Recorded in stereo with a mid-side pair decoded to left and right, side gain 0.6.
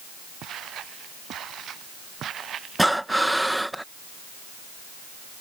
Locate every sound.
0.4 s footsteps: 55° right; by 3.6 s 40° right
2.8 s breathing: 5° right